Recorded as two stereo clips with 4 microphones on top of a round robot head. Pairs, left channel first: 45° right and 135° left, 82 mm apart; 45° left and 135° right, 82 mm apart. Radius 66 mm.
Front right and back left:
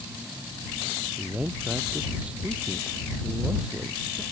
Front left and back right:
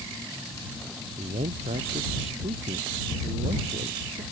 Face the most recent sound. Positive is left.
turn(degrees=-145)